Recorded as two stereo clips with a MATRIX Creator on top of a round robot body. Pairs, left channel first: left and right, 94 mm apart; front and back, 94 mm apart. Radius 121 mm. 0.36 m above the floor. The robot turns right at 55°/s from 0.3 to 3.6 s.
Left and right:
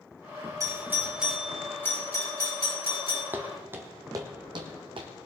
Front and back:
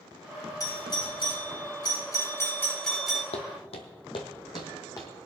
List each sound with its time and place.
0.6 s a doorbell: 45° right, 3 m; by 3.2 s 100° left, 3 m
3.3 s footsteps: 20° right, 0.9 m; by 5.1 s 60° right, 1.5 m